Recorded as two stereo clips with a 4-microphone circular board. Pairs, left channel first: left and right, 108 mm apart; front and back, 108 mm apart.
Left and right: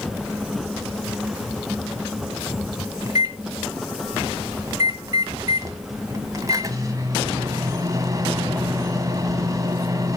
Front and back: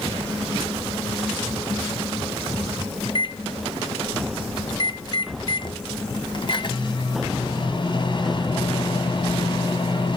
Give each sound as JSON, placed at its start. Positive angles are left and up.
{"t": 3.0, "sound": "a microwave", "azimuth_deg": -35, "distance_m": 1.4}